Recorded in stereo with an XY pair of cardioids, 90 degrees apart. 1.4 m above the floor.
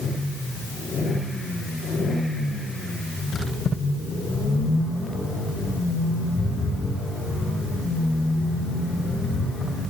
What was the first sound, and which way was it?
Only background noise.